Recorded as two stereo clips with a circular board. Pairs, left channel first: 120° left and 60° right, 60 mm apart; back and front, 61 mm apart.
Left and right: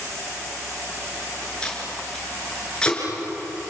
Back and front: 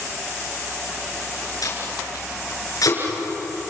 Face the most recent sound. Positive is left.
turn(degrees=-165)